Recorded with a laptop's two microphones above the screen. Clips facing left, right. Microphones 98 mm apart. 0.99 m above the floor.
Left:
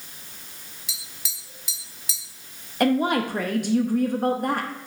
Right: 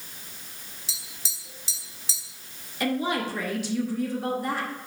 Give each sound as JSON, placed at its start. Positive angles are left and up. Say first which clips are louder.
{"t": 0.9, "sound": "tapping", "louder": "left 1 dB", "side_deg": -30, "distance_m": 0.9}
{"t": 2.8, "sound": "a woman speaking", "louder": "left 6 dB", "side_deg": 55, "distance_m": 0.8}